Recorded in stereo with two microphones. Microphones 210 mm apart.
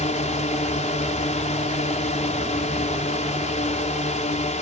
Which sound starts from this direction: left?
A drone, at 0.0 s.